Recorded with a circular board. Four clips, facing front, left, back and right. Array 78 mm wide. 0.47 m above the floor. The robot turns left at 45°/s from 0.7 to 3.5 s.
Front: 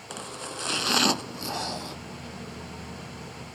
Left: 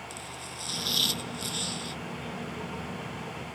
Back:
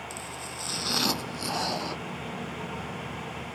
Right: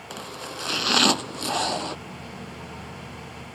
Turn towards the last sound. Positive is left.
turn(degrees=180)